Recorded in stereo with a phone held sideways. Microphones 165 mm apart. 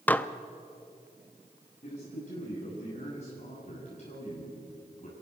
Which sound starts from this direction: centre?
Dishes clattering, at 0.1 s.